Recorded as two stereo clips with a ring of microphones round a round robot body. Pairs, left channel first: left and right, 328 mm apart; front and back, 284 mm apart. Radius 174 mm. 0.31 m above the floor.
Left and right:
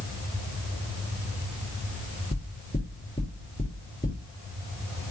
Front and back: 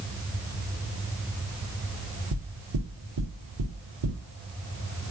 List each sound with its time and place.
2.3 s knocking: 170° left, 4.5 m